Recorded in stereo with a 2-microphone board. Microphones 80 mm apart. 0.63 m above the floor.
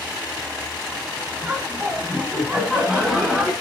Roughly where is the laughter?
Centre.